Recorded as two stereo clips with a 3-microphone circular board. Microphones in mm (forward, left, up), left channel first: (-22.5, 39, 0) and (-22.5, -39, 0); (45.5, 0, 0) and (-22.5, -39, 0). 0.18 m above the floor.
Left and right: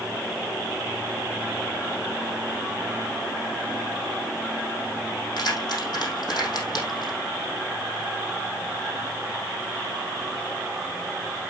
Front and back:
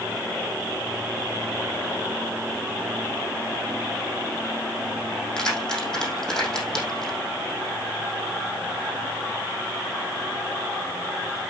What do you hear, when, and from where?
5.4 s keys jangling: 115° left, 4.5 m